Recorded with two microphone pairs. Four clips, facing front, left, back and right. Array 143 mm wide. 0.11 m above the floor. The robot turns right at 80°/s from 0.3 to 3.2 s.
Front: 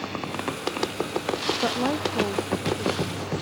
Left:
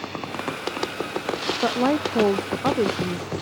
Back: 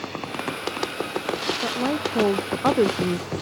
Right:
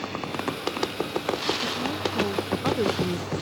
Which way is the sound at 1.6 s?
70° left.